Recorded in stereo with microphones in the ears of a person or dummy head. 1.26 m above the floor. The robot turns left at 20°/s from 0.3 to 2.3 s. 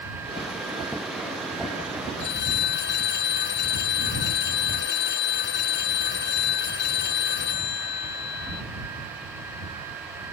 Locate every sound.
2.2 s a phone ringing: 60° left (ahead or behind); by 8.6 s 55° left (ahead or behind)